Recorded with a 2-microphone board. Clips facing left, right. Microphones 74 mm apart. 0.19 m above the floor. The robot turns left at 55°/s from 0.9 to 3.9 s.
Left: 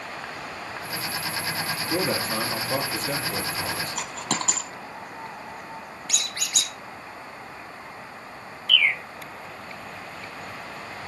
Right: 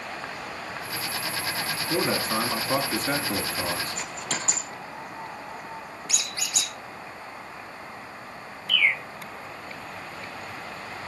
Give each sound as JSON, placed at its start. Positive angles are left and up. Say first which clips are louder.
{"t": 1.9, "sound": "a man speaking", "louder": "right 1 dB", "azimuth_deg": -25, "distance_m": 2.0}
{"t": 4.0, "sound": "a dropped coin", "louder": "left 3 dB", "side_deg": 80, "distance_m": 1.8}
{"t": 6.1, "sound": "a squeak", "louder": "left 2 dB", "side_deg": 60, "distance_m": 1.7}
{"t": 8.7, "sound": "a bird", "louder": "left 1 dB", "side_deg": -20, "distance_m": 1.6}